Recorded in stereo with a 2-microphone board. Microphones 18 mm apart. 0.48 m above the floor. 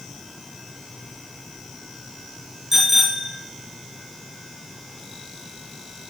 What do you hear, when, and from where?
2.7 s a bicycle bell: 15° right (ahead or behind), 4.5 m